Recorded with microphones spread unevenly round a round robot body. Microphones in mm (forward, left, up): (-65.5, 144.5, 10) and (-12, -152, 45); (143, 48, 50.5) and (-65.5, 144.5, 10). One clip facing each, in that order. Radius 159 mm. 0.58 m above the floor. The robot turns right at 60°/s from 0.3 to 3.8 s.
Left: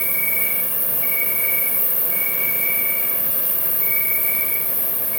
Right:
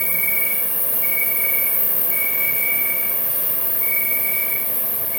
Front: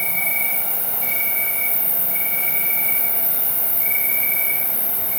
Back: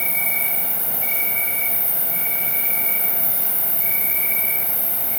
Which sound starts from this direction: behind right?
An insect, at 0.0 s.